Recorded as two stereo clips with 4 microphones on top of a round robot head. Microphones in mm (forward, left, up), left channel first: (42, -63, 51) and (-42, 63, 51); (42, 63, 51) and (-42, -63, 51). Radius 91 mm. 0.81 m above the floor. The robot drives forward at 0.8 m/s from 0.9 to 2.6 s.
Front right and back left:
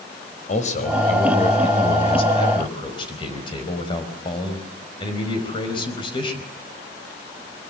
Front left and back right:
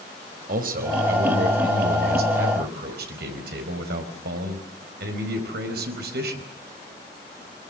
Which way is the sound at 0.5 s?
95° right.